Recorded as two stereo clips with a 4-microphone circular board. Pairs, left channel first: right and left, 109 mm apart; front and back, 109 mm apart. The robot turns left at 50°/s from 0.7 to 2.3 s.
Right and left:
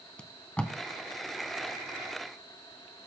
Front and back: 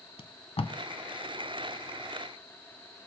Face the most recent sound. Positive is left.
turn(degrees=-90)